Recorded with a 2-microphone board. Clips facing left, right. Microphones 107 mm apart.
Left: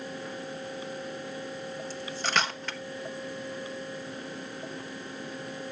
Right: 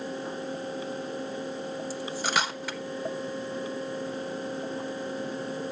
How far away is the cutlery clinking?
About 1.2 m.